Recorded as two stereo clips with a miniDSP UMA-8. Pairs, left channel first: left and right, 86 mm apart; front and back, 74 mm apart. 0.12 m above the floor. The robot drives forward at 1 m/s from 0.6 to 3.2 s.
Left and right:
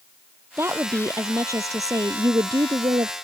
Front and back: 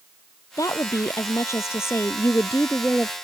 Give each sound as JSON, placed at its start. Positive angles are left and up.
{"t": 0.6, "sound": "a woman speaking", "azimuth_deg": -35}